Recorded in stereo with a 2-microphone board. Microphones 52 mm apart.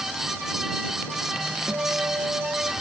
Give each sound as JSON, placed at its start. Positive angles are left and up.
{"t": 1.7, "sound": "a guitar", "side_deg": -50}